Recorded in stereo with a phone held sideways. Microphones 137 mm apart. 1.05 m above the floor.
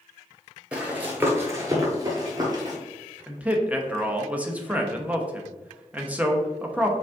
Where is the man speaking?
10° right (ahead or behind), 0.7 m.